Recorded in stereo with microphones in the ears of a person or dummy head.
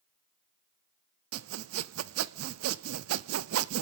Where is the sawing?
75° right (ahead or behind), 0.5 m.